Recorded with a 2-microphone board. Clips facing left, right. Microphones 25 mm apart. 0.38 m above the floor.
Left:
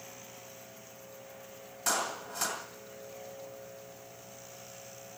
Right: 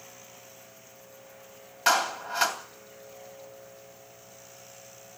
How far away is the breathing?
I don't hear breathing.